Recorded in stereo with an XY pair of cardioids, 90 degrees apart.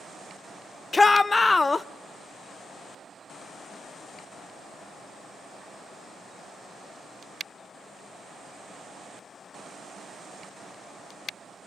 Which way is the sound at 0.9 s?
25° left.